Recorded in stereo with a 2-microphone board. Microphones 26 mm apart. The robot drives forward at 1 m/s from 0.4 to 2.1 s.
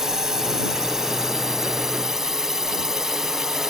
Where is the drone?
20° right (ahead or behind); by 3.7 s 15° right (ahead or behind).